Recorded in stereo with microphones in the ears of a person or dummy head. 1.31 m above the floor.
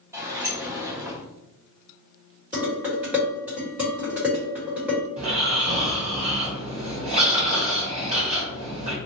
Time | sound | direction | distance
0.1 | a sliding door | 15° right (ahead or behind) | 0.6 m
2.5 | dishes clattering | 5° right (ahead or behind) | 1.4 m
5.2 | snoring | 30° right (ahead or behind) | 0.9 m